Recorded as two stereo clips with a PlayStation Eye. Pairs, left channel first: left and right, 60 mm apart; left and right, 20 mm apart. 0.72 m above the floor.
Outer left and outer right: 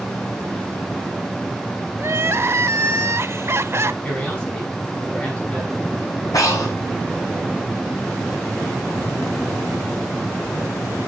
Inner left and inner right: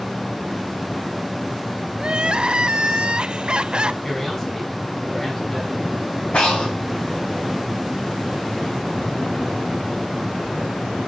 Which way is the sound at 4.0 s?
30° left (ahead or behind).